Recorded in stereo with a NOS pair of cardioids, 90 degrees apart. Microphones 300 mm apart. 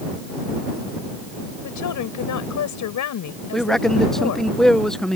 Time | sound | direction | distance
1.6 | a woman speaking | 65° left | ?
3.5 | a man speaking | straight ahead | ?